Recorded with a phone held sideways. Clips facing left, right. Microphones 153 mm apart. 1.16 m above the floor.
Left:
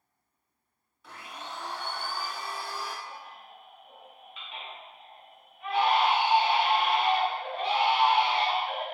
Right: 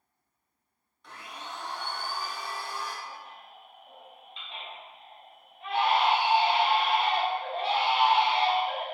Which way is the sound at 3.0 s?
30° right (ahead or behind).